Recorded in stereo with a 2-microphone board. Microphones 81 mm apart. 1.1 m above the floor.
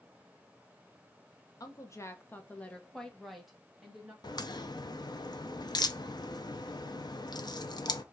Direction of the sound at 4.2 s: 60° left (ahead or behind).